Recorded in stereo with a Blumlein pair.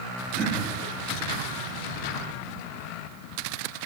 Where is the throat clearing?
30° right, 1.7 m.